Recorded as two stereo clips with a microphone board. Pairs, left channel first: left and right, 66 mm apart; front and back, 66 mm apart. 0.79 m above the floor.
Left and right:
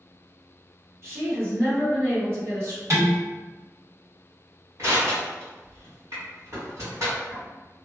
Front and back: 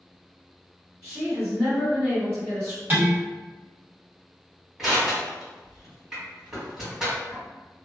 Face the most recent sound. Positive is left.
turn(degrees=-100)